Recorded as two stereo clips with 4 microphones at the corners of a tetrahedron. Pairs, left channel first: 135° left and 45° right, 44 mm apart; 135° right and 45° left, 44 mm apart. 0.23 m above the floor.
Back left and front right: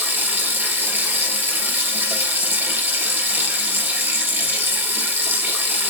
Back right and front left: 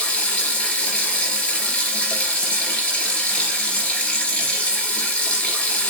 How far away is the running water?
About 3 m.